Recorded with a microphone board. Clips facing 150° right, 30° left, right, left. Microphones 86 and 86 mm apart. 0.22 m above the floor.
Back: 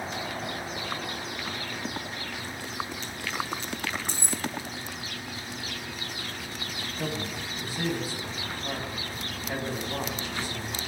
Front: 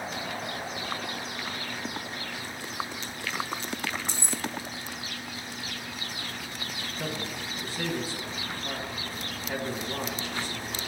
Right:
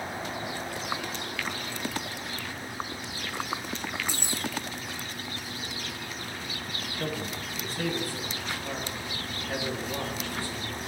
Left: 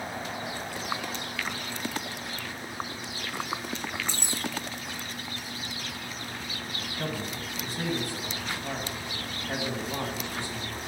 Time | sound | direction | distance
4.1 | keys jangling | 165° right | 1.2 m
7.0 | a man speaking | 145° left | 1.9 m